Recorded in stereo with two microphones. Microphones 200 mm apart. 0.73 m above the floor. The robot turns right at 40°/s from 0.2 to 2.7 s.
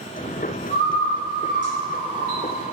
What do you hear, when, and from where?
0.7 s a bird: 65° right (ahead or behind), 1.4 m; by 2.6 s 30° right (ahead or behind), 1.4 m